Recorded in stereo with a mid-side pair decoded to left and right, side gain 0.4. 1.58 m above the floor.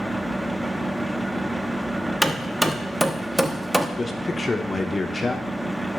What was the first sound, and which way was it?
A fan, 5° right.